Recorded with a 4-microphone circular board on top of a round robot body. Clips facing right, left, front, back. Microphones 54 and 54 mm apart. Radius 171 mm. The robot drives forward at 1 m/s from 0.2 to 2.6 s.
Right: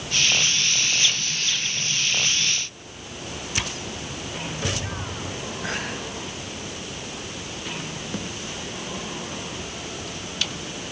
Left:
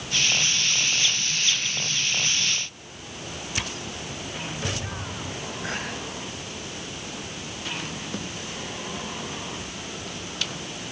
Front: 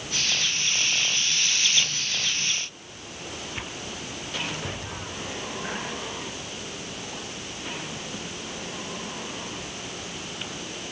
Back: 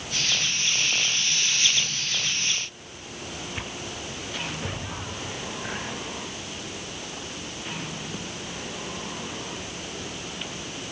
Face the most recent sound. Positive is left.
No sound to turn to.